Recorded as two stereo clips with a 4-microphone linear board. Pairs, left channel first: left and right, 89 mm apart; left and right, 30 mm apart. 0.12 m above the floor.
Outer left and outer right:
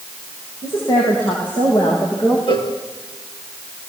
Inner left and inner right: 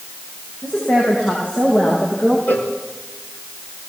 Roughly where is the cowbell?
Left.